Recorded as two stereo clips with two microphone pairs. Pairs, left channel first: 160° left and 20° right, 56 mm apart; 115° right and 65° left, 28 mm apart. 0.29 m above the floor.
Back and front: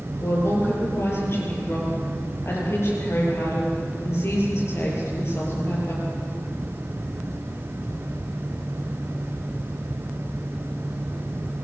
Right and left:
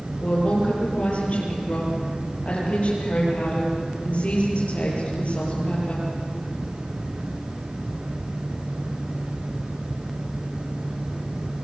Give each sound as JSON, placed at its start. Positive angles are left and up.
{"t": 0.2, "sound": "a woman speaking", "azimuth_deg": -160, "distance_m": 8.5}